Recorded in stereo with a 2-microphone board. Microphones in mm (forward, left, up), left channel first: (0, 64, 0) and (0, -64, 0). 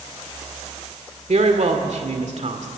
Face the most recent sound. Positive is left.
turn(degrees=-60)  # may be behind; listen again after turning